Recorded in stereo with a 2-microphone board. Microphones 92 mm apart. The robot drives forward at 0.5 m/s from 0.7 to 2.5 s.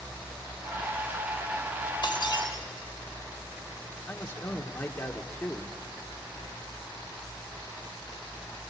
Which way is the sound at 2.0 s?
55° left (ahead or behind).